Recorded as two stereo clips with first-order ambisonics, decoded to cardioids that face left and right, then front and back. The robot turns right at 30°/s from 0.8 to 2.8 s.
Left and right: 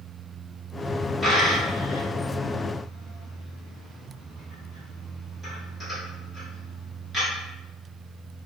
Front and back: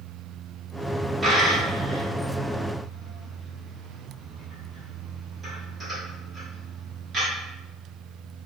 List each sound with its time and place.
1.2 s a dropped coin: 150° left, 1.2 m; by 7.3 s 160° right, 1.2 m